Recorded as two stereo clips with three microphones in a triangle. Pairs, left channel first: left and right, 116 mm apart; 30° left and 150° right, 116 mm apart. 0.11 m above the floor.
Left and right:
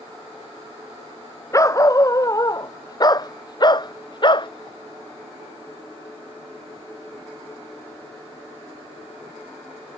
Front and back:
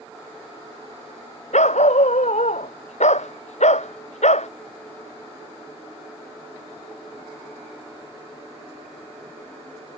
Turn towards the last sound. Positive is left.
turn(degrees=40)